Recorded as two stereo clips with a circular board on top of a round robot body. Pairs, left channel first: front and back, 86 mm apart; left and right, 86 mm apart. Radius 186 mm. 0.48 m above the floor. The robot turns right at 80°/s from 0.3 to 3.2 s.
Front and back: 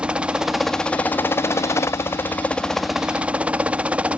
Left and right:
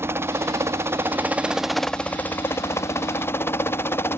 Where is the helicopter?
115° right; by 4.2 s 115° left.